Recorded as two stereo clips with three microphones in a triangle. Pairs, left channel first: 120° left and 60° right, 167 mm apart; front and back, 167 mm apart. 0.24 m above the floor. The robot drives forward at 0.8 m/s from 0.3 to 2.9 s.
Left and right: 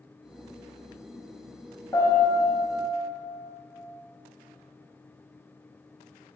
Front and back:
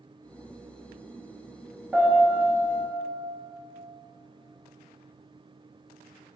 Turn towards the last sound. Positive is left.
turn(degrees=165)